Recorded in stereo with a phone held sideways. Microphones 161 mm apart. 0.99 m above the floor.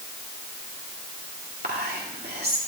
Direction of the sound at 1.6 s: 80° right.